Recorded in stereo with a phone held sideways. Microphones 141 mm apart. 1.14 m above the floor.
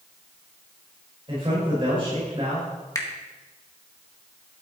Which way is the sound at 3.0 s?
25° left (ahead or behind).